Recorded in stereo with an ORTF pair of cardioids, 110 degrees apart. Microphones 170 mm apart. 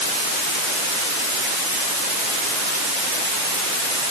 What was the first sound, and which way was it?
Only background noise.